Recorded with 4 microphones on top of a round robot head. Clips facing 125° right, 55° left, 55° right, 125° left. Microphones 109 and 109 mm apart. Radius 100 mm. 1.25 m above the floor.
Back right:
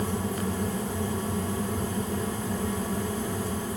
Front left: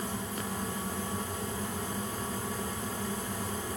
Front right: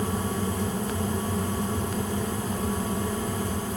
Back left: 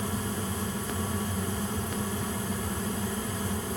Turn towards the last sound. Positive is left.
No sound to turn to.